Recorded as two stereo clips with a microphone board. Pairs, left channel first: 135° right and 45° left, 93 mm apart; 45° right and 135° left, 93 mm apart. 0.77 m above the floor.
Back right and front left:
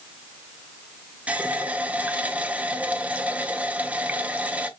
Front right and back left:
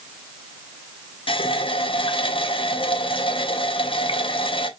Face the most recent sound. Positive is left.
turn(degrees=-30)